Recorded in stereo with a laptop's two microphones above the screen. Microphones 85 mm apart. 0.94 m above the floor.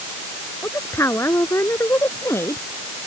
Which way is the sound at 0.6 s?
35° left (ahead or behind).